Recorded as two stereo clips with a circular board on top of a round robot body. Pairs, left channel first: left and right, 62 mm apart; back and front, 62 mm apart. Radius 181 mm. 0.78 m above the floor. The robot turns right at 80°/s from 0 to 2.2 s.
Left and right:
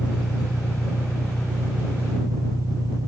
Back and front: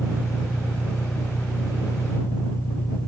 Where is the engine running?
60° left; by 3.1 s 125° right.